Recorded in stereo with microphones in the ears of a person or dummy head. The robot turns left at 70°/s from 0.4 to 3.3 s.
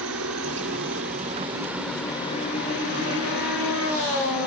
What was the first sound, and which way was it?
A helicopter, 70° right (ahead or behind).